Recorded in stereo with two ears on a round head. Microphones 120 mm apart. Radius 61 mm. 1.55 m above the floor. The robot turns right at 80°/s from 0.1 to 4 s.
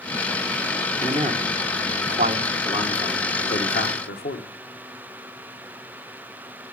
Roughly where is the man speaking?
Right.